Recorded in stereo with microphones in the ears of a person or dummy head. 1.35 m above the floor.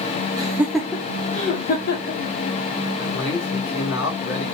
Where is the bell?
No bell in this recording.